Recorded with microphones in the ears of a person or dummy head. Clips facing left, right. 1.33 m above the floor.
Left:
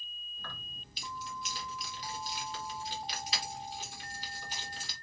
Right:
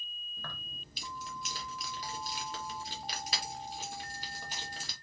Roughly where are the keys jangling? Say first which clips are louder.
Right 1 dB; right.